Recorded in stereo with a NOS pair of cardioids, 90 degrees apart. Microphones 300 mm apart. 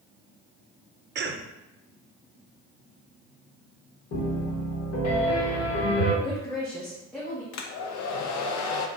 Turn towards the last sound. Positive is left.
turn(degrees=65)